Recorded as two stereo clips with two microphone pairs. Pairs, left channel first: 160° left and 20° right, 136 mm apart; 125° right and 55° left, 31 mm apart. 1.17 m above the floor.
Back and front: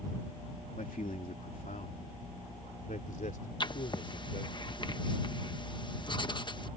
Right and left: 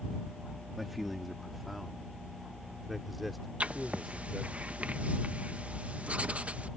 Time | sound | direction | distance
0.8 | a man speaking | 145° left | ?
3.6 | writing | 100° left | ?